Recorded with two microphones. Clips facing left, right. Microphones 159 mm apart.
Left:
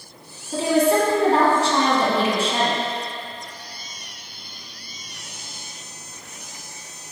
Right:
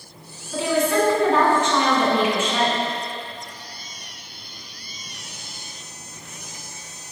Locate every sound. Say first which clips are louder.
0.5 s a woman speaking: left 2 dB; 35° left (ahead or behind), 1.7 m